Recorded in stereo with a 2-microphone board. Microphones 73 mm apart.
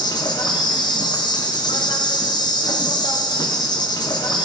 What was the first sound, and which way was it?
An insect, 75° left (ahead or behind).